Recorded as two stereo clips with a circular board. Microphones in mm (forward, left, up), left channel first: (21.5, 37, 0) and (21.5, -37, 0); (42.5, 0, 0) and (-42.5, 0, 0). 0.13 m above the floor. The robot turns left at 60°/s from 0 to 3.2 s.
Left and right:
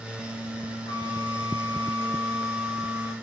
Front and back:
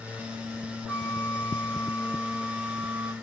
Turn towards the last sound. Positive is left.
turn(degrees=-35)